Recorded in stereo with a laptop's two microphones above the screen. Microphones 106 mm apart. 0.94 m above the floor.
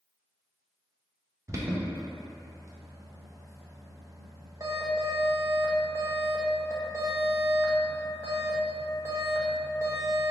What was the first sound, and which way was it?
An alarm, 30° right (ahead or behind).